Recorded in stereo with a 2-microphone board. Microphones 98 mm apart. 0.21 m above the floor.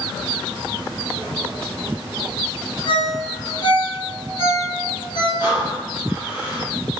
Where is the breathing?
25° right (ahead or behind), 1.2 m.